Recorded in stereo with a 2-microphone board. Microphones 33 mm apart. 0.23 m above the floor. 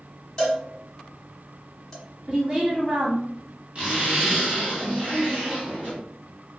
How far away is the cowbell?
About 1.4 m.